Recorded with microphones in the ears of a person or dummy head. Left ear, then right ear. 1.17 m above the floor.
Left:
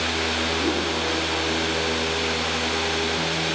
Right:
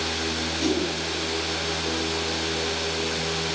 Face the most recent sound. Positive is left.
turn(degrees=-55)  # may be behind; listen again after turning